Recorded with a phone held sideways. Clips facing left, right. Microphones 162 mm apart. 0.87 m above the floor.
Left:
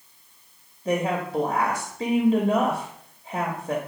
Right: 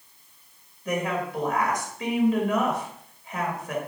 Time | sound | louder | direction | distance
0.8 | a woman speaking | left 3 dB | 30° left (ahead or behind) | 0.7 m